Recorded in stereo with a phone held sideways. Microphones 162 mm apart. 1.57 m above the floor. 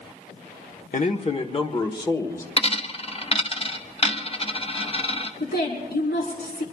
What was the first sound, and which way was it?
A man speaking, 50° left (ahead or behind).